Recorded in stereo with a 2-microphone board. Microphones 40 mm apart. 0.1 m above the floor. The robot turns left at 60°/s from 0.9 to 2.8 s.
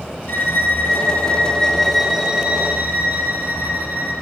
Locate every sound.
0.3 s a violin: 60° left, 4 m; by 4.1 s 50° right, 4 m